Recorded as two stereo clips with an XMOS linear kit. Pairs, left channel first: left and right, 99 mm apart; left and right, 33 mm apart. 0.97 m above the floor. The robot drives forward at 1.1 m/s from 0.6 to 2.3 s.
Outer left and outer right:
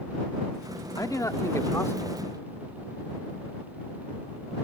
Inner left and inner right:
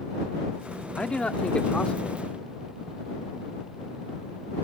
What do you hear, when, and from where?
1.0 s a man speaking: 35° left (ahead or behind); by 2.3 s 20° left (ahead or behind)